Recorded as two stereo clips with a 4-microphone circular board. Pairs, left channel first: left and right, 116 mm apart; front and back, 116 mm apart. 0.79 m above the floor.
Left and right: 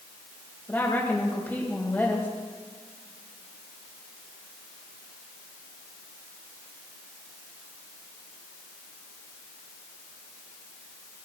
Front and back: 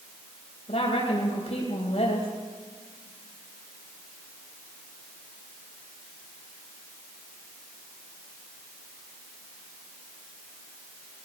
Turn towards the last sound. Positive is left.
turn(degrees=20)